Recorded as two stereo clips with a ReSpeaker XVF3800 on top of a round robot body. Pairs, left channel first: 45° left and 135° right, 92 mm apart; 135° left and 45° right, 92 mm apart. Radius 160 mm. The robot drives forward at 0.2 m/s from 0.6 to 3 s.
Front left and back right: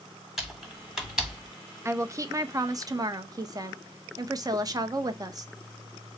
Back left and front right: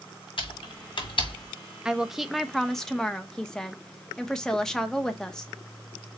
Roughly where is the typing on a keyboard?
Behind left.